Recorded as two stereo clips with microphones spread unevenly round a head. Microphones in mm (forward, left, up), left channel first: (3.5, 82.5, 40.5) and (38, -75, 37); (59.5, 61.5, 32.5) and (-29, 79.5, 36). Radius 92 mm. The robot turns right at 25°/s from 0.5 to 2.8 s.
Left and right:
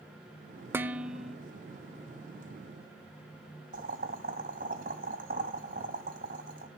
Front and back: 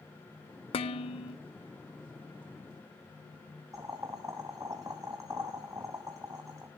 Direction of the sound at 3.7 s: 120° right.